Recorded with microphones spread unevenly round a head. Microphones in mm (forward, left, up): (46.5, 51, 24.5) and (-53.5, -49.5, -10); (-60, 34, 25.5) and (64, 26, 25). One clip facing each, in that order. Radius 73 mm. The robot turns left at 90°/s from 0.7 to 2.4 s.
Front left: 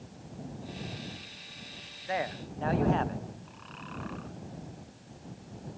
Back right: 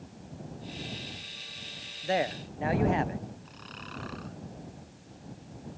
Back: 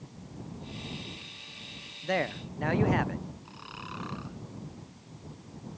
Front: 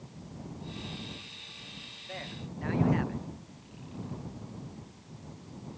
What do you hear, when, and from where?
2.0 s a man speaking: 175° right; by 3.2 s 155° left
3.5 s snoring: straight behind